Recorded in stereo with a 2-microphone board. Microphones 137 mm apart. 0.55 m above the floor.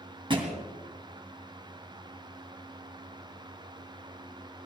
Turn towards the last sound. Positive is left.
turn(degrees=-35)  # may be behind; listen again after turning